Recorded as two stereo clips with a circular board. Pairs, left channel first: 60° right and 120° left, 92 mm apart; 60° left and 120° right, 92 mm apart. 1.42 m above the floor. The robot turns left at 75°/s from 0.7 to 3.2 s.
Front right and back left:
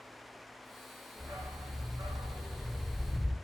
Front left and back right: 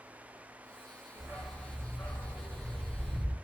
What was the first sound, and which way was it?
A dog barking, 175° right.